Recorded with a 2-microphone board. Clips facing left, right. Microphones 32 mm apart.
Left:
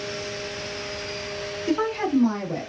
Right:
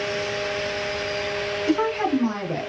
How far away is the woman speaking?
About 1.1 m.